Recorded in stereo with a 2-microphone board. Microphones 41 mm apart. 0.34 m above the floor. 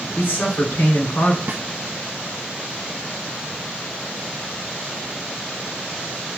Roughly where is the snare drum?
Right.